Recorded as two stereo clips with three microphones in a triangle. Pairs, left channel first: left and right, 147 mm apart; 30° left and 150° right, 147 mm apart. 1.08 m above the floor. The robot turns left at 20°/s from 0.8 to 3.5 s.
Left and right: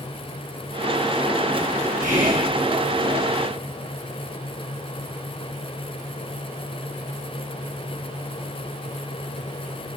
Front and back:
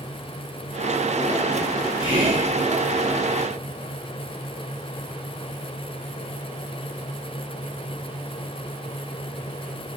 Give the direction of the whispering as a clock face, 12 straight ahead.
3 o'clock.